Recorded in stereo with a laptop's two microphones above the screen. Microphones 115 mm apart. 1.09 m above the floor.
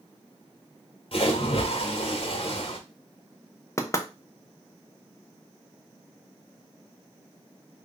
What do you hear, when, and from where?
1.1 s a splash: 50° left (ahead or behind), 1.2 m
3.8 s knocking: 25° left (ahead or behind), 0.7 m